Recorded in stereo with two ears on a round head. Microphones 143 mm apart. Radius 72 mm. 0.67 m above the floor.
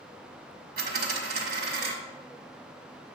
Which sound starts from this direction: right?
A dropped coin, at 0.8 s.